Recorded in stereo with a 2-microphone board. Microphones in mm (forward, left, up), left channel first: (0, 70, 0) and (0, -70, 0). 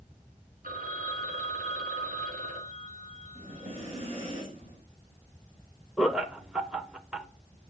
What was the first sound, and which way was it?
A phone ringing, 80° right.